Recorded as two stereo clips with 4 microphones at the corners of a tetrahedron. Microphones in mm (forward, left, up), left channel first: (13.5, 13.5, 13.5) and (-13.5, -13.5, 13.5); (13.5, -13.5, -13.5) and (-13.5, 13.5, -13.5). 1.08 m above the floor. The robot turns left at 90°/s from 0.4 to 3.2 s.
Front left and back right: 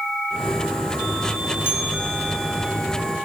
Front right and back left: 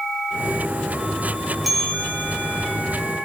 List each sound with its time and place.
1.6 s a bell: 45° left, 7 m; by 2.7 s 50° right, 7 m